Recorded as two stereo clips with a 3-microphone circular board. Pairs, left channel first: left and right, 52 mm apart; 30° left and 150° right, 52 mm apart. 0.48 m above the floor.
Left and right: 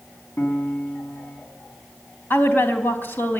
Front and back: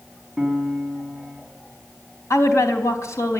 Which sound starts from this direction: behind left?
A piano, at 0.4 s.